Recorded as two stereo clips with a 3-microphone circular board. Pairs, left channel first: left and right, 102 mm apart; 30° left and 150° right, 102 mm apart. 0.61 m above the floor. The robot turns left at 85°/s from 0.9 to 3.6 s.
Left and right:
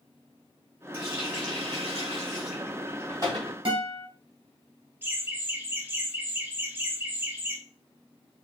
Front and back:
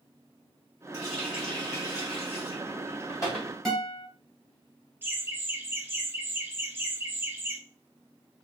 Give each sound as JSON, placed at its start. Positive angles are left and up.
{"t": 0.9, "sound": "a running tap", "azimuth_deg": 160, "distance_m": 2.5}
{"t": 3.6, "sound": "a guitar", "azimuth_deg": -60, "distance_m": 2.5}
{"t": 5.0, "sound": "laughter", "azimuth_deg": -125, "distance_m": 1.1}